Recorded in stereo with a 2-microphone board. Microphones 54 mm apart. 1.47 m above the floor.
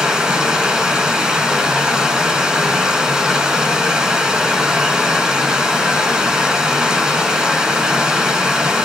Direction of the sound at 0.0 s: 10° right (ahead or behind).